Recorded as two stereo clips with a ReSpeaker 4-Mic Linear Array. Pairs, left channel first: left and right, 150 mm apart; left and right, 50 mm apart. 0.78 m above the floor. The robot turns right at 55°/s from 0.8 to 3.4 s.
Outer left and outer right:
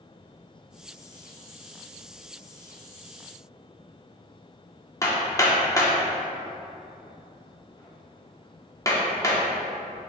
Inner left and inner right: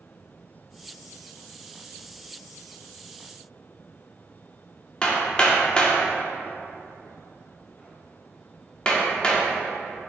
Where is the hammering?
20° left (ahead or behind), 1.1 m.